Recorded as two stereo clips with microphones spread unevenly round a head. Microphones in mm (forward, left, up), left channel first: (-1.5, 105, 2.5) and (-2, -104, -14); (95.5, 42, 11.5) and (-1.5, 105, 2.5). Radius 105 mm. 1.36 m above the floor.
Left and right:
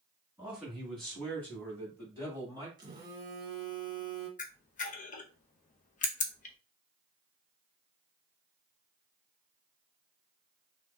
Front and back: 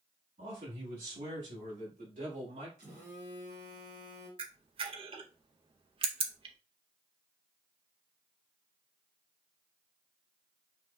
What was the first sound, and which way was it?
A man speaking, 175° right.